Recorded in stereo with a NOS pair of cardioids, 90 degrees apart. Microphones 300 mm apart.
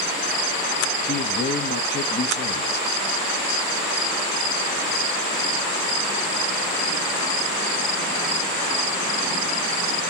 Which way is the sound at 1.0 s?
35° left.